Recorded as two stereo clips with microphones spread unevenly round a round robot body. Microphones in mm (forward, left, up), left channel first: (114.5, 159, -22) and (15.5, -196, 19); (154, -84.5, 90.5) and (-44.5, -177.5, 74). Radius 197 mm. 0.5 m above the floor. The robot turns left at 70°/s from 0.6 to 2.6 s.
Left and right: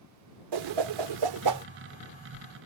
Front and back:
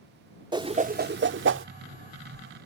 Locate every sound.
0.5 s a whoosh: 85° right; by 1.6 s 160° right